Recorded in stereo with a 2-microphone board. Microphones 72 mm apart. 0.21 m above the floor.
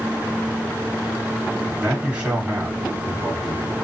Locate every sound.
1.8 s a man speaking: 15° right (ahead or behind), 1.3 m